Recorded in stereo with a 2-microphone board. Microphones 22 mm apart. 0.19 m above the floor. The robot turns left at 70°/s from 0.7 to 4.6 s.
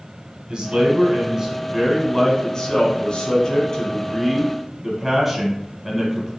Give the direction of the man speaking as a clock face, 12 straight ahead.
3 o'clock.